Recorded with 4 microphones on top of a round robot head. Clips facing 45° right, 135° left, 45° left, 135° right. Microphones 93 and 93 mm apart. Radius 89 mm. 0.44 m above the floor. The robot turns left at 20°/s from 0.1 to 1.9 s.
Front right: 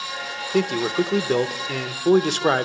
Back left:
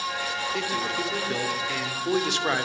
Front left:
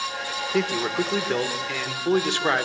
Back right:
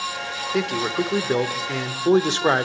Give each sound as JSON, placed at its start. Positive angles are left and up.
{"t": 0.5, "sound": "a man speaking", "azimuth_deg": -50, "distance_m": 1.2}